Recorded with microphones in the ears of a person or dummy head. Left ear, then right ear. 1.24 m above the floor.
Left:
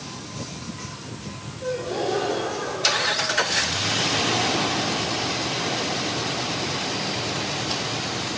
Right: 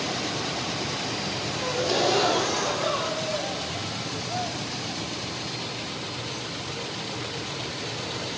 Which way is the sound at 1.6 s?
70° right (ahead or behind).